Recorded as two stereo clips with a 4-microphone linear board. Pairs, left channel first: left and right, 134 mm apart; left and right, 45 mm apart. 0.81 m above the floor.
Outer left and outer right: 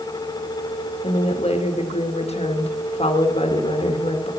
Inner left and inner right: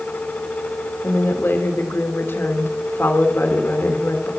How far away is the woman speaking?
About 1.3 m.